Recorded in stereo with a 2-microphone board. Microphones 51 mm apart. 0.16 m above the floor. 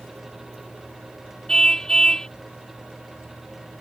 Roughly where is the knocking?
I don't hear knocking.